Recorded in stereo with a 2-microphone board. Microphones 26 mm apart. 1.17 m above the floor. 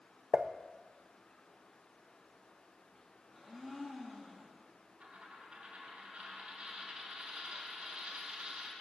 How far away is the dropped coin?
About 3 m.